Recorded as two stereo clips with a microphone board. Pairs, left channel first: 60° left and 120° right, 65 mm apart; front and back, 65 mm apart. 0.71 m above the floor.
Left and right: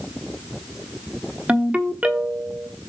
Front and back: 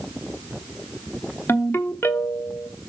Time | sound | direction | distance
1.5 | a ringtone | 50° right | 1.0 m